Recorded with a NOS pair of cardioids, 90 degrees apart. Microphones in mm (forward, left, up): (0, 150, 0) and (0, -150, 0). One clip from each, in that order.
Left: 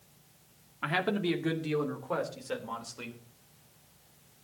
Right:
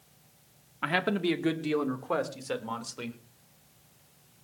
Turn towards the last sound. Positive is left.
turn(degrees=-35)